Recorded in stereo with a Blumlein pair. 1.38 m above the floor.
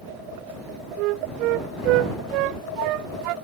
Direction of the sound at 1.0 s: 40° right.